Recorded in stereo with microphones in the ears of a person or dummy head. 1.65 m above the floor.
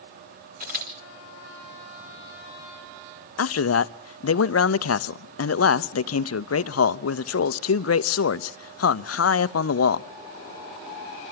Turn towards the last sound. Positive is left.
turn(degrees=60)  # may be behind; listen again after turning